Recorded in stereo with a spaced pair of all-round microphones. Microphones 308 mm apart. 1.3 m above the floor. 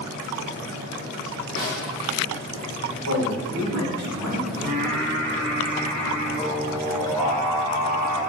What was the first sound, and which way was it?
A snare drum, 50° left (ahead or behind).